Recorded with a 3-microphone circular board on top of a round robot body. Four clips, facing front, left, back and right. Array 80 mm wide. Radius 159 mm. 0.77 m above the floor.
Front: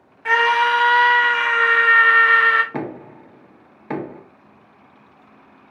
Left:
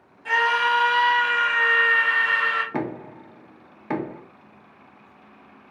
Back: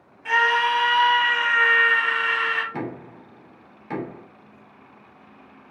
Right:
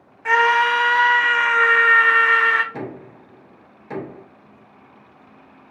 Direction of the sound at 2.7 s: 50° left.